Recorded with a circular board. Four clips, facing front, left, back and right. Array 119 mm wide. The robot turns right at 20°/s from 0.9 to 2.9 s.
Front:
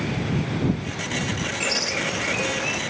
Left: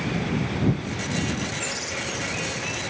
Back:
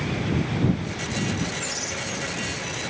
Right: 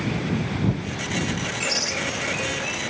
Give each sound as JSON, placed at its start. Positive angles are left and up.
{"t": 1.6, "sound": "a bird", "azimuth_deg": -35}